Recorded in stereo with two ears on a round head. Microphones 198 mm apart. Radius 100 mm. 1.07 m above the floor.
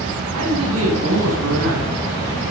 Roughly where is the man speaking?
Right.